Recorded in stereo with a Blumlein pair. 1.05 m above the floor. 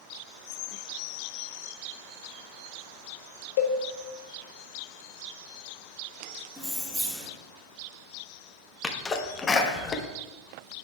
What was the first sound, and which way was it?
A cowbell, 55° left.